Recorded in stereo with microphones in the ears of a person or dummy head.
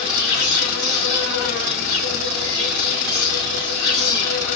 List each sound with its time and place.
0.0 s an insect: 45° left (ahead or behind), 1.7 m